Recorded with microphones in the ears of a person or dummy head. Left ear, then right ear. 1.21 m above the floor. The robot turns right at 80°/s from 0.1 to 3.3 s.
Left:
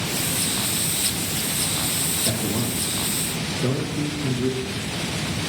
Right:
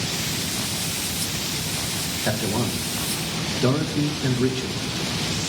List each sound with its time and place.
2.2 s a man speaking: 50° right (ahead or behind), 2.5 m; by 4.9 s 40° right (ahead or behind), 2.5 m